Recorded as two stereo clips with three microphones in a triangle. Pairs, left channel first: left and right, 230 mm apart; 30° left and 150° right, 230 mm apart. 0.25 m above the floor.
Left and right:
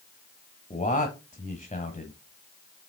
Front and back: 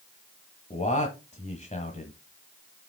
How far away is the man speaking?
About 1.2 m.